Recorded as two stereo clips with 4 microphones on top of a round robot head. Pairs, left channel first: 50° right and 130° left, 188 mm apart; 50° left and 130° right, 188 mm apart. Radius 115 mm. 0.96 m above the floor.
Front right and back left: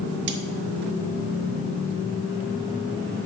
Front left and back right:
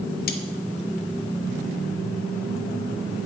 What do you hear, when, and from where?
0.3 s cutlery clinking: 95° left, 0.8 m